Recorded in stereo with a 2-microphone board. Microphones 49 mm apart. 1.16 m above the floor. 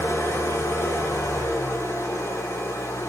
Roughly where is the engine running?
Left.